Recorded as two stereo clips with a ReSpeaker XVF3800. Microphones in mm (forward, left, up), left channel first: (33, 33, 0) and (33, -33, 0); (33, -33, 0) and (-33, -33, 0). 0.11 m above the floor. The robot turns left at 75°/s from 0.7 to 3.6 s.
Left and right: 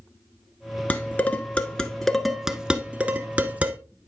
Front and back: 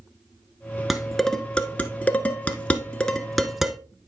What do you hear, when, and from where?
0.9 s dishes clattering: 100° left, 1.0 m; by 3.8 s 105° right, 1.0 m